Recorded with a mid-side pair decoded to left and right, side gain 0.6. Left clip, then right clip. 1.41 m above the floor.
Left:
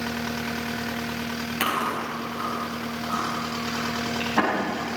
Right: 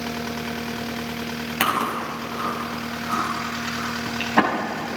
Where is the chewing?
30° right, 6.5 m.